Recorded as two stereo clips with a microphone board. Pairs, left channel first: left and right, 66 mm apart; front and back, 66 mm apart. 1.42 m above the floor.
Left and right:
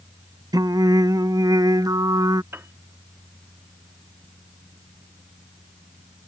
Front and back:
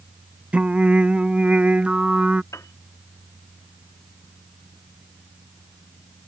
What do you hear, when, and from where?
0.5 s singing: 110° right
2.5 s a piano: 35° right